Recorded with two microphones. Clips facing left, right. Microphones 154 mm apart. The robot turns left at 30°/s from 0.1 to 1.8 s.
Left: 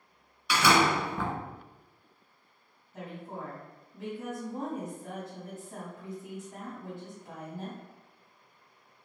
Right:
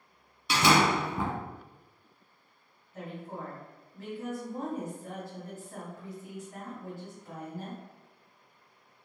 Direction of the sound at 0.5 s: 30° right (ahead or behind).